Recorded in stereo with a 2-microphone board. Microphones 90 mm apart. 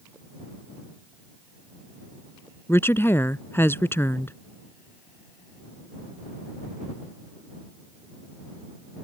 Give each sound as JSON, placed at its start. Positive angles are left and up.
{"t": 2.7, "sound": "a woman speaking", "side_deg": 25}